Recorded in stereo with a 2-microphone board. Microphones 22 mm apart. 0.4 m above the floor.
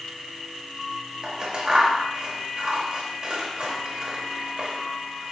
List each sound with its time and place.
1.2 s scissors: 35° right (ahead or behind), 1.0 m